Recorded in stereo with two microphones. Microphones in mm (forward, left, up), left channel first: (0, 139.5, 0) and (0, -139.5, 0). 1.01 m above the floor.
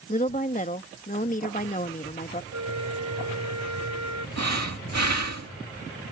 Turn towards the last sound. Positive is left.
turn(degrees=-70)  # may be behind; listen again after turning